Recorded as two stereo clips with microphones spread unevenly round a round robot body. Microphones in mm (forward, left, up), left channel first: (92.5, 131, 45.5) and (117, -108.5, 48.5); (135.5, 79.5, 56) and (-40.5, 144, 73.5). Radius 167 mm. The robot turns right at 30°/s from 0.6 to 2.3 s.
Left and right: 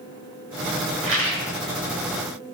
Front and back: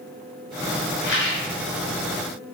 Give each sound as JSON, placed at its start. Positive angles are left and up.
{"t": 1.0, "sound": "a rattle", "azimuth_deg": -50, "distance_m": 1.9}